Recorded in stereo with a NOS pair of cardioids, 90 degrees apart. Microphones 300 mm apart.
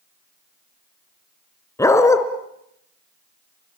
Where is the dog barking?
10° left, 3 m.